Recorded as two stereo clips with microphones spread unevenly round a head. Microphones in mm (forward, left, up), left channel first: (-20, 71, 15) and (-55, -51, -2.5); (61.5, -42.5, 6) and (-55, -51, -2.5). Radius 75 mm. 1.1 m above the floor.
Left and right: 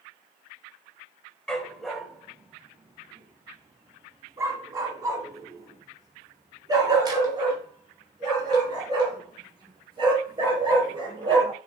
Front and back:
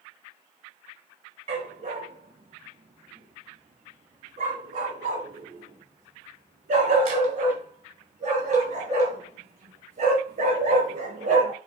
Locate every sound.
1.5 s a dog barking: 150° left, 1.4 m; by 11.5 s 160° right, 6 m